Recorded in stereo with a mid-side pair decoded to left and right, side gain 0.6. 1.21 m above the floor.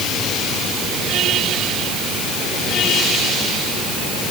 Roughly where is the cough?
No cough in this recording.